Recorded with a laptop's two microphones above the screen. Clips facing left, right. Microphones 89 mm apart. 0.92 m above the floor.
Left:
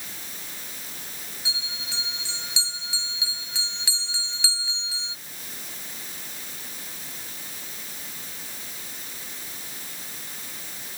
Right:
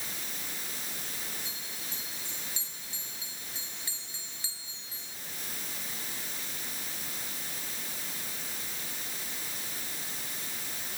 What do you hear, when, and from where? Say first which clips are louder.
1.4 s a bell: left 6 dB; 80° left